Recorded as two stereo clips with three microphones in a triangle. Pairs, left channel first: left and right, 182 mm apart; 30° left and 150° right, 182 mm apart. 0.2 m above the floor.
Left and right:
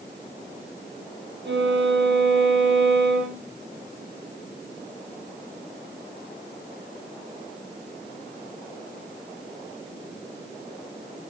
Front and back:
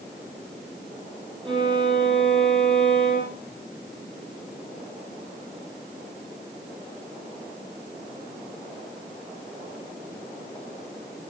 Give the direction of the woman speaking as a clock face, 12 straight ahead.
No woman speaking in this recording.